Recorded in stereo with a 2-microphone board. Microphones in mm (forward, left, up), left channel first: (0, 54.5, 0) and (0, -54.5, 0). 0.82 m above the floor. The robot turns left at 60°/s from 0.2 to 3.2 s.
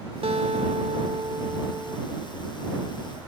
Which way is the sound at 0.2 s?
70° right.